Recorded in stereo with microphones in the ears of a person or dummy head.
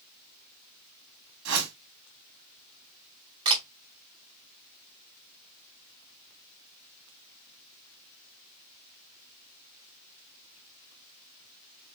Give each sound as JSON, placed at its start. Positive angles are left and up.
{"t": 1.4, "sound": "a whoosh", "side_deg": -80, "distance_m": 1.7}
{"t": 3.5, "sound": "a camera shutter", "side_deg": -20, "distance_m": 1.6}